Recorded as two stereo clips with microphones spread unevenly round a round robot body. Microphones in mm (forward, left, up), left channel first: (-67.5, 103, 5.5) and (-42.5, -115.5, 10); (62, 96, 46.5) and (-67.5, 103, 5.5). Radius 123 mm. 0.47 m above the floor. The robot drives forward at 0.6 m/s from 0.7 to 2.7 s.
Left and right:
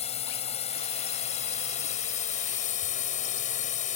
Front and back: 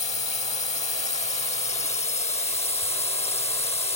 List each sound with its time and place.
0.0 s a drone: 35° left; by 4.0 s 40° left